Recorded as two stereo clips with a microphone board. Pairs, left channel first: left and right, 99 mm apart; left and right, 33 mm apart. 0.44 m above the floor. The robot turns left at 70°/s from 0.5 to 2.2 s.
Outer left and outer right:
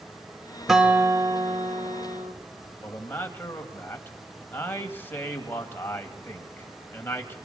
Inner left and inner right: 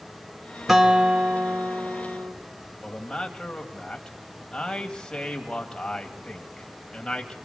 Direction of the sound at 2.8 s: 20° left (ahead or behind).